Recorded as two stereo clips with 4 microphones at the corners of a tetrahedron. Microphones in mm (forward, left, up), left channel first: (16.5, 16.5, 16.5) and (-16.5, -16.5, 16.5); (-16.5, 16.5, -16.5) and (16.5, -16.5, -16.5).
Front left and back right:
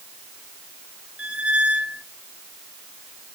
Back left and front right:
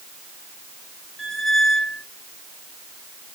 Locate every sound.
1.2 s a squeak: 155° right, 0.7 m